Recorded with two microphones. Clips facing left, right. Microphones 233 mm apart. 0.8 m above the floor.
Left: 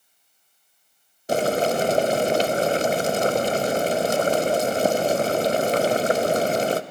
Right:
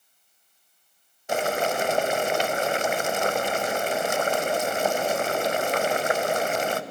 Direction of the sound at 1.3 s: 35° left (ahead or behind).